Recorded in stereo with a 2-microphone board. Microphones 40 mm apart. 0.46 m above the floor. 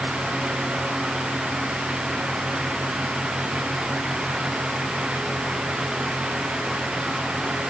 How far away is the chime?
I don't hear a chime.